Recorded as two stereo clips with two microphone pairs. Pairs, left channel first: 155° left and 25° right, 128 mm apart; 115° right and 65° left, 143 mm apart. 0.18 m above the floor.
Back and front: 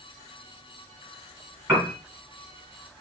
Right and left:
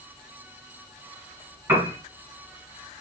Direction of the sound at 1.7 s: 25° left.